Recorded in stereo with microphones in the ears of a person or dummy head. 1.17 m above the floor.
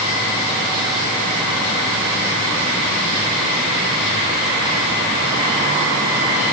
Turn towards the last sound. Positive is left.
No sound to turn to.